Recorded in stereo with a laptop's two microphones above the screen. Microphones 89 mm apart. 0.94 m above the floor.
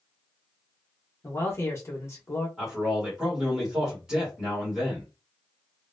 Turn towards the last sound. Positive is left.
turn(degrees=-5)  # may be behind; listen again after turning